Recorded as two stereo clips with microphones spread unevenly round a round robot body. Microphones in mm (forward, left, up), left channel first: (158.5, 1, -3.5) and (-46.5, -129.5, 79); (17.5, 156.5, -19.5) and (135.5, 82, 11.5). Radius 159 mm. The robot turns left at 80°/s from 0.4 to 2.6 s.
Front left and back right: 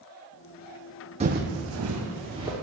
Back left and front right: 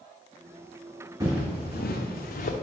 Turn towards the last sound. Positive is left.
turn(degrees=130)